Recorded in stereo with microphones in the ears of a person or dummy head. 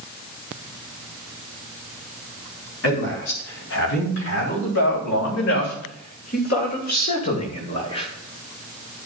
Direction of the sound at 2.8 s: 75° left (ahead or behind).